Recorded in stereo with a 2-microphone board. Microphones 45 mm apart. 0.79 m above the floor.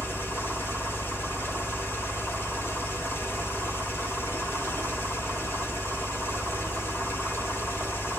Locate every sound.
0.0 s an engine running: 60° left (ahead or behind), 1.8 m